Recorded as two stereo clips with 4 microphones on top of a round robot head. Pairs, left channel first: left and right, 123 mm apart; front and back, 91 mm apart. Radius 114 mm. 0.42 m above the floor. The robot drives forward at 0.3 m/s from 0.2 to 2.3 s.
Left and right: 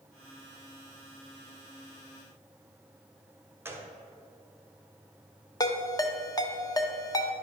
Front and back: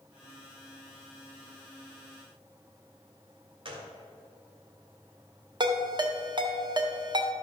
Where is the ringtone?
145° left, 1.1 m.